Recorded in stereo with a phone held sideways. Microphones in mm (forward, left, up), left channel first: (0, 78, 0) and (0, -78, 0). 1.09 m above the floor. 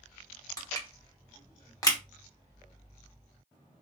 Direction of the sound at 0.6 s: 25° left (ahead or behind).